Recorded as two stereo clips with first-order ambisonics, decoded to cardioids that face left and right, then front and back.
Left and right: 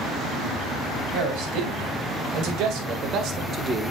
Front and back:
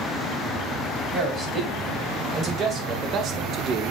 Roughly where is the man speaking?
Behind right.